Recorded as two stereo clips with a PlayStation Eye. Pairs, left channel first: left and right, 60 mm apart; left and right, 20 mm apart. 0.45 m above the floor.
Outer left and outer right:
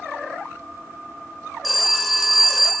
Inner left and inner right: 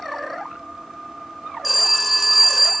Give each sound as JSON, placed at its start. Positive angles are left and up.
{"t": 1.6, "sound": "a phone ringing", "side_deg": 0, "distance_m": 0.6}